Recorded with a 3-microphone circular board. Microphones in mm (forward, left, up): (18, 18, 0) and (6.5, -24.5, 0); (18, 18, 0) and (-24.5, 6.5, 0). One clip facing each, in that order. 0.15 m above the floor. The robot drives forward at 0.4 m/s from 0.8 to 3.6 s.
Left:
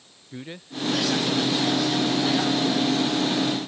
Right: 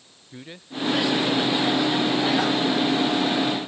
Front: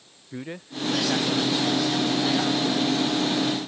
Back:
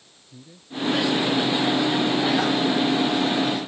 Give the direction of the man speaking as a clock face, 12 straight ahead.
12 o'clock.